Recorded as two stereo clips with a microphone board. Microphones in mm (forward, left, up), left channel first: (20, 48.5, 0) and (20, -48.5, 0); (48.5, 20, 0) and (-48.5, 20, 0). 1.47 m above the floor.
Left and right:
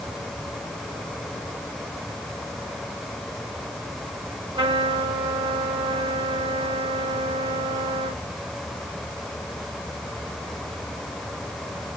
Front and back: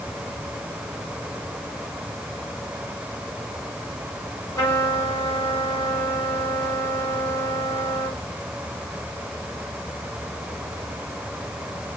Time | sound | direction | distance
4.5 | a trumpet | 65° right | 9 m